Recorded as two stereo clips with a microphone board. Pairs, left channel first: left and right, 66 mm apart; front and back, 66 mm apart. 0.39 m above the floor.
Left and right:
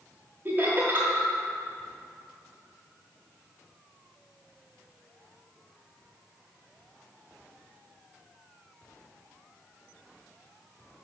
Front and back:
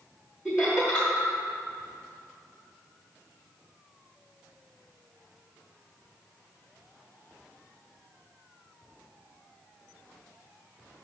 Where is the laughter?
100° right, 1.1 m.